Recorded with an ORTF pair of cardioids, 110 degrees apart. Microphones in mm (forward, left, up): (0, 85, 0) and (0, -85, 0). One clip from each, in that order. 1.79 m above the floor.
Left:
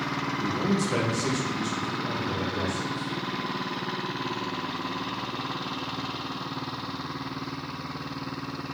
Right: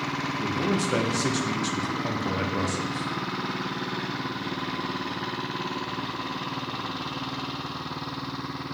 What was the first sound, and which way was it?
A man speaking, straight ahead.